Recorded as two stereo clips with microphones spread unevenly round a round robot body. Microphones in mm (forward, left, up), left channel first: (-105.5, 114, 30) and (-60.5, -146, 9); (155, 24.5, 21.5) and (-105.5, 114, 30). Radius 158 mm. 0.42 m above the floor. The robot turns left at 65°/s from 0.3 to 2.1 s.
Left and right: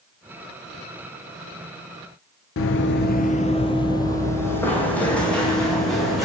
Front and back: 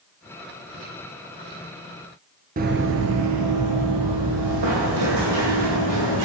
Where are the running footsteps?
110° left, 0.5 m; by 6.3 s 170° right, 2 m.